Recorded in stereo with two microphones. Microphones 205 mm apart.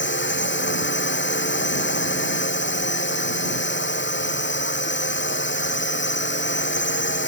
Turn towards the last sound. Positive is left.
turn(degrees=65)  # may be behind; listen again after turning